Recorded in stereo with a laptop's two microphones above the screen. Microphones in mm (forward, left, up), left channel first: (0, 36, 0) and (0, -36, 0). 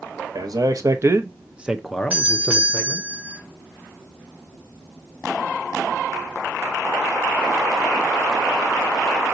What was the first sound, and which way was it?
A man speaking, 60° right (ahead or behind).